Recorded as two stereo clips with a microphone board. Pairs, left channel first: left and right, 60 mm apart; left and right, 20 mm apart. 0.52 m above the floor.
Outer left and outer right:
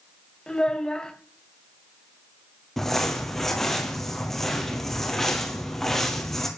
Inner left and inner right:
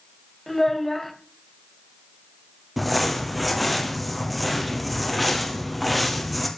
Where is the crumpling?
5° left (ahead or behind), 2.5 m.